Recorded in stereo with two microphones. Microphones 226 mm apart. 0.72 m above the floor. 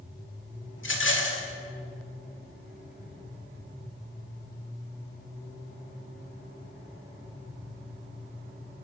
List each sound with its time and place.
0.8 s a rattle: 60° left (ahead or behind), 1.5 m